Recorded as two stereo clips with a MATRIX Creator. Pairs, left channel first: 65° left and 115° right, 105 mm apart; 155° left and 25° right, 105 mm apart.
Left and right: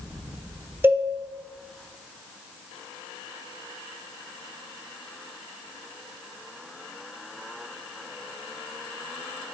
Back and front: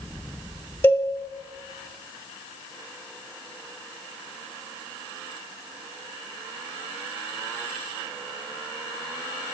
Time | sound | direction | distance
0.8 | a cowbell | 160° right | 0.6 m